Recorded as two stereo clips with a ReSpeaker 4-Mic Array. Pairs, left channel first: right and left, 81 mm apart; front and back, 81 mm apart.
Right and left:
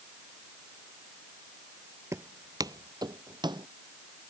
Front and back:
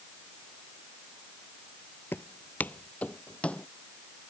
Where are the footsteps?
55° left; by 3.7 s 75° left.